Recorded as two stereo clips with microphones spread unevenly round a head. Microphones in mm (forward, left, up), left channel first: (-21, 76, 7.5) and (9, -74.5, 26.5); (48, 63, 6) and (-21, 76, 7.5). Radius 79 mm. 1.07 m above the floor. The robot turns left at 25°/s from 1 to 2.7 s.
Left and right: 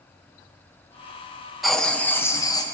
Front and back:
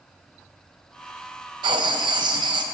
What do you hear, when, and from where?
1.6 s writing: 170° right, 0.7 m; by 2.6 s 165° left, 0.7 m